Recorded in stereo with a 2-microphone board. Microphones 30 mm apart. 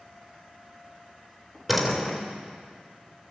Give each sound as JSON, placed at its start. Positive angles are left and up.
{"t": 1.7, "sound": "a door slam", "side_deg": -5, "distance_m": 3.5}